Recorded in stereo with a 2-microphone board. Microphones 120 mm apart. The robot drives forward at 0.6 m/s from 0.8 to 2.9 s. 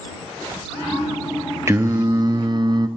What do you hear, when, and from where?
1.7 s singing: 25° right (ahead or behind), 0.7 m; by 2.9 s 35° right (ahead or behind), 0.5 m